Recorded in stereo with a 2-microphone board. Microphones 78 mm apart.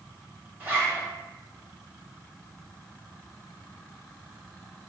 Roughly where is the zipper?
Right.